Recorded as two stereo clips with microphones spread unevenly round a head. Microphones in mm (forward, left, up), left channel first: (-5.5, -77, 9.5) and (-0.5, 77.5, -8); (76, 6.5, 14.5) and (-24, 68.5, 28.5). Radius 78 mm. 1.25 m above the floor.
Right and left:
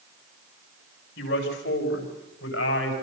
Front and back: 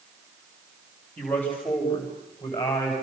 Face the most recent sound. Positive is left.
turn(degrees=-100)